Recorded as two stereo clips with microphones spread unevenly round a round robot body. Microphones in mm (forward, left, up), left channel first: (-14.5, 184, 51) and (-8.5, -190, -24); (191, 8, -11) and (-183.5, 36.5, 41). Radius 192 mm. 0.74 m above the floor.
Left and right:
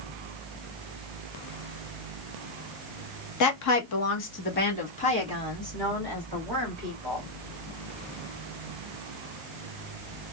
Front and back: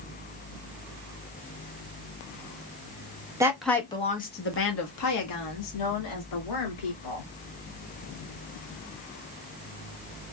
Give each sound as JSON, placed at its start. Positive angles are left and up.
{"t": 3.4, "sound": "a woman speaking", "azimuth_deg": 85, "distance_m": 0.8}